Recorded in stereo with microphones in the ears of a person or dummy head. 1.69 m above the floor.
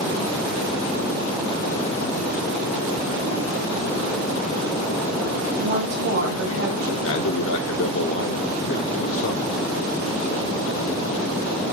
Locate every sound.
5.6 s a woman speaking: 90° right, 3.5 m
7.0 s a man speaking: 65° left (ahead or behind), 0.8 m